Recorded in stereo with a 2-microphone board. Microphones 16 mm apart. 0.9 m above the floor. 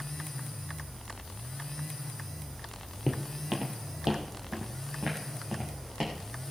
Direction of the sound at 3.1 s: 10° right (ahead or behind).